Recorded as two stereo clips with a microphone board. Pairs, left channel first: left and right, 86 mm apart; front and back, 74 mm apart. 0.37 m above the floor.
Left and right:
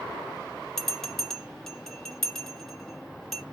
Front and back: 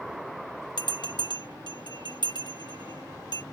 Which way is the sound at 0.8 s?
5° left.